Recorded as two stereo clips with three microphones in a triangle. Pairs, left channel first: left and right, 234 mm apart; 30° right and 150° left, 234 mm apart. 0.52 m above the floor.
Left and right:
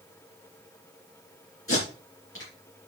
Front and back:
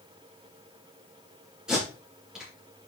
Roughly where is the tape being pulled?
Ahead left.